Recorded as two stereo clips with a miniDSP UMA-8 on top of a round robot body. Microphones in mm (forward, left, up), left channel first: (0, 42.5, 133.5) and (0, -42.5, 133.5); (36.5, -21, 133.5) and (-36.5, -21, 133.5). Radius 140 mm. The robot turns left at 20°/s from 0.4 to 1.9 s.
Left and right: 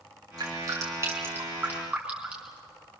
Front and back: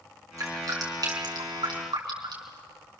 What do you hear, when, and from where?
0.4 s dripping: 135° right, 5 m; by 2.6 s 165° right, 5 m